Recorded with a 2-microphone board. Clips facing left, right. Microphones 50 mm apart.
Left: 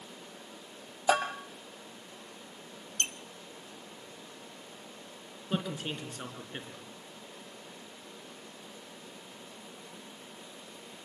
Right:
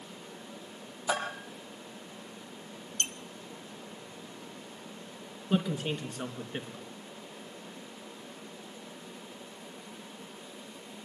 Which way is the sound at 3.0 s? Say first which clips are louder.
Left 1 dB; 35° left (ahead or behind).